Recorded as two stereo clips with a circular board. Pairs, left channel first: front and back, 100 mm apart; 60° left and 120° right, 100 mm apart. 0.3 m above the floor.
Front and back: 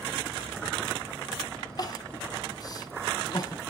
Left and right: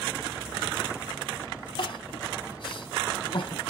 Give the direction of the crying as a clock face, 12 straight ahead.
11 o'clock.